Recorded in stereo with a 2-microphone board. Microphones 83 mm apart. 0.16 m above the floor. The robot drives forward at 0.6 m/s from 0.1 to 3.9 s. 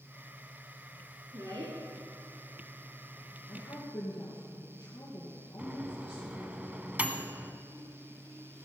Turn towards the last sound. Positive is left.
turn(degrees=-20)  # may be behind; listen again after turning